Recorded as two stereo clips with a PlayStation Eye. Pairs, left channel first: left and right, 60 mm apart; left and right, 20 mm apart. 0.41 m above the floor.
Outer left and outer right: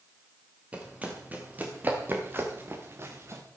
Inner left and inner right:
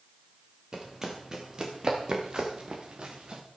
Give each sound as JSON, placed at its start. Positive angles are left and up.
{"t": 0.7, "sound": "running footsteps", "side_deg": -20, "distance_m": 4.0}